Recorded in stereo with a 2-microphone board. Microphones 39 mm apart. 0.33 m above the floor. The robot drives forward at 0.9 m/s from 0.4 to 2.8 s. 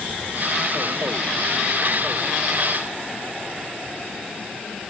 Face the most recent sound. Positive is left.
No sound to turn to.